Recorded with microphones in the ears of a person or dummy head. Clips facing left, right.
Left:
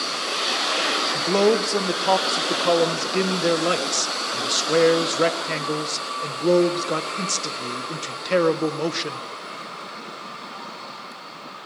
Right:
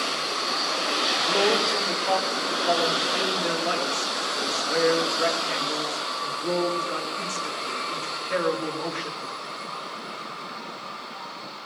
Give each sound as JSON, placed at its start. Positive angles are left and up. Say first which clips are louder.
{"t": 1.1, "sound": "a man speaking", "louder": "left 6 dB", "side_deg": 50, "distance_m": 1.3}